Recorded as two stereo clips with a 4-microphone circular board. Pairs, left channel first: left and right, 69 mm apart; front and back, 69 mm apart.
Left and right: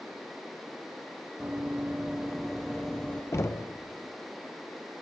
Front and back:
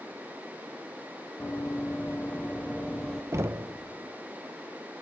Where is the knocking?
135° left, 0.6 m.